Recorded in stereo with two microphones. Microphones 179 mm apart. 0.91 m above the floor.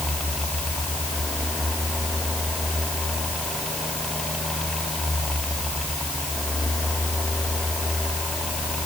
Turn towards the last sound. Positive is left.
No sound to turn to.